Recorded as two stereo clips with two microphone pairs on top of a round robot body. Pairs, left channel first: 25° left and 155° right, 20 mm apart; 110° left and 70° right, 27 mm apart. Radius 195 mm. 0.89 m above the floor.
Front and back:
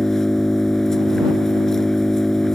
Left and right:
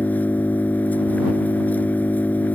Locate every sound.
0.0 s an engine running: 90° left